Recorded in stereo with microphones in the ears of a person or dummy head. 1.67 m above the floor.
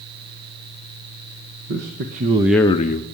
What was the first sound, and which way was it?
A man speaking, 65° right (ahead or behind).